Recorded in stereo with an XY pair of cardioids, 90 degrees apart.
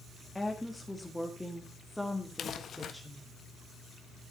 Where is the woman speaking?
10° left, 2.5 m; by 3.3 s 5° right, 3.5 m.